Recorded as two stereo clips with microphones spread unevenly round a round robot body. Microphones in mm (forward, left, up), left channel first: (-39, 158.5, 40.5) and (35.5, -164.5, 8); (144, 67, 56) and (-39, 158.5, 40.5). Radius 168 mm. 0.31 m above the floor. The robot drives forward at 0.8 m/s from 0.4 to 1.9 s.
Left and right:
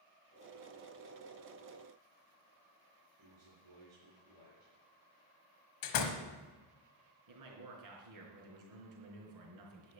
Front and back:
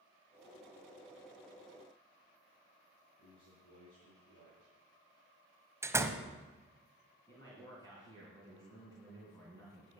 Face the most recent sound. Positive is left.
turn(degrees=-105)